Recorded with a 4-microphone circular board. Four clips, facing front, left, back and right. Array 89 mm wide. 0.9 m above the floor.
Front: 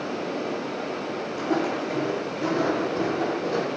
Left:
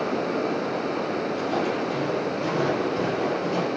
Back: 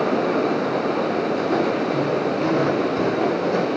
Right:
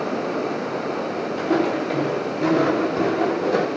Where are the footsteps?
65° right, 6.5 m; by 3.7 s 90° right, 7 m.